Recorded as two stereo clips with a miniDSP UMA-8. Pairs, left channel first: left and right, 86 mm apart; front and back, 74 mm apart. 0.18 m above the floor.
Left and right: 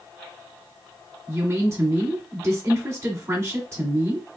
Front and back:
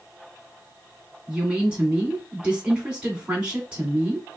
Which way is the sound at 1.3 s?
110° right.